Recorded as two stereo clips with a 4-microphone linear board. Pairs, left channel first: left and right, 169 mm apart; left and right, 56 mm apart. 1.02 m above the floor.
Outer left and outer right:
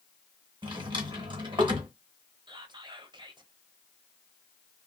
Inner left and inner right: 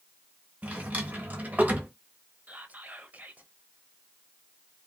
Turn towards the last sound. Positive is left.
turn(degrees=-30)  # may be behind; listen again after turning